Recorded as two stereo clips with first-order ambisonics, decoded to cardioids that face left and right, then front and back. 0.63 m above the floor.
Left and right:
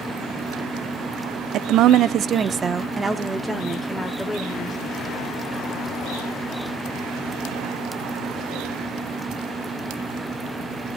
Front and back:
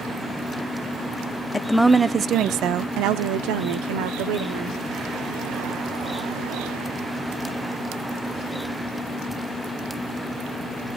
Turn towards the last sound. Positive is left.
turn(degrees=175)